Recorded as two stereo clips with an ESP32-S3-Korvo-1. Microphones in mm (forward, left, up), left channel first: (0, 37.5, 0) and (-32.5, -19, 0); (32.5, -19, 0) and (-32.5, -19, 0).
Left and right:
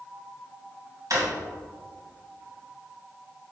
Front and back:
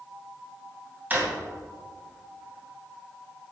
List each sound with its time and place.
1.1 s a drawer: 120° right, 2.0 m